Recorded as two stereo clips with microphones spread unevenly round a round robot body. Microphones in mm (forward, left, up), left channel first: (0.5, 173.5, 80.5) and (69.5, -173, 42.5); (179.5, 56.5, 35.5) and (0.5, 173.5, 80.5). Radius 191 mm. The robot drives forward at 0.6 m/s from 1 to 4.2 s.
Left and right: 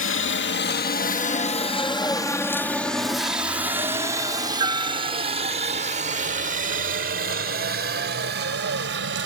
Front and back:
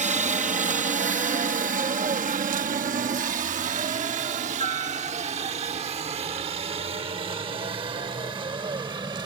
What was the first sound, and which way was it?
A helicopter, 110° left.